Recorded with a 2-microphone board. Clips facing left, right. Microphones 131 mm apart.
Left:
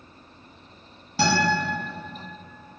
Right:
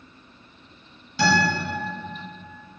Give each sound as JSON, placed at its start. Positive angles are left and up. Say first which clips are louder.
{"t": 1.2, "sound": "a guitar", "louder": "right 1 dB", "side_deg": 40, "distance_m": 1.1}